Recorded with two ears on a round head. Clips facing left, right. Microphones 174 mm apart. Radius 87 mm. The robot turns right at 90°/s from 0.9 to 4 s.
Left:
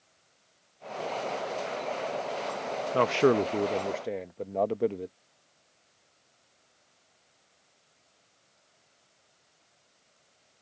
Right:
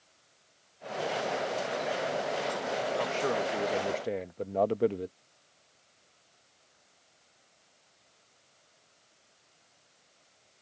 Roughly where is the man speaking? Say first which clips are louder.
Left 11 dB; left.